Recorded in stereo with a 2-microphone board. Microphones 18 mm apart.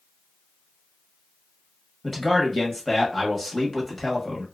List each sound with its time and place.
2.0 s a man speaking: centre (ahead or behind), 1.0 m